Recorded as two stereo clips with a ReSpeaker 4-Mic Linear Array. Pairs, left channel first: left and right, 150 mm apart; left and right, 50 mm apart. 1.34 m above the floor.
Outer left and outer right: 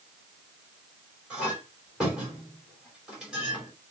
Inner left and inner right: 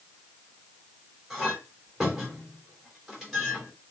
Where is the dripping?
No dripping in this recording.